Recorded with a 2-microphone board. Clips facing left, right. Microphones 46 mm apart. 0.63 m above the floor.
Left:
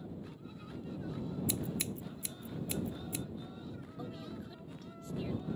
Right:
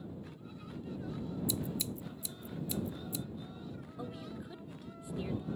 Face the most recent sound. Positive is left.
turn(degrees=-15)  # may be behind; listen again after turning